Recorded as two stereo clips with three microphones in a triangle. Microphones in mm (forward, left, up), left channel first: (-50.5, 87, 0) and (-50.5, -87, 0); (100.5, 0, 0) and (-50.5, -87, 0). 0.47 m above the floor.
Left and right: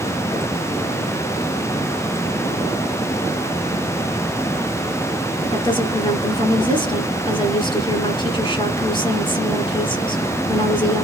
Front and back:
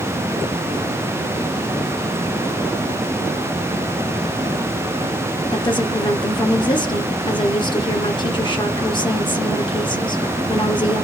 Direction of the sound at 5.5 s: 60° left.